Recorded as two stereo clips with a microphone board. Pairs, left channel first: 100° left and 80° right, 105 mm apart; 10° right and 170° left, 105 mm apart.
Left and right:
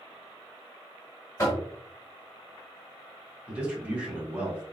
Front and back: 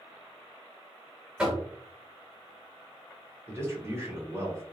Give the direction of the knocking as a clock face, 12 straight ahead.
9 o'clock.